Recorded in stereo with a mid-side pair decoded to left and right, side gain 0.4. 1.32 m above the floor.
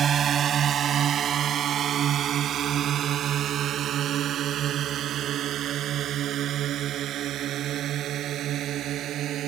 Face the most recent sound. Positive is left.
turn(degrees=-75)